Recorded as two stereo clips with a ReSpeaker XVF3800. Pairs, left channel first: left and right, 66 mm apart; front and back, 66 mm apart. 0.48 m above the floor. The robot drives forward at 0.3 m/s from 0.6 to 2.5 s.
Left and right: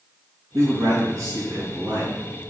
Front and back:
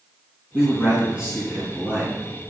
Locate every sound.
0.5 s a man speaking: 110° right, 4.5 m; by 2.2 s 115° right, 4.5 m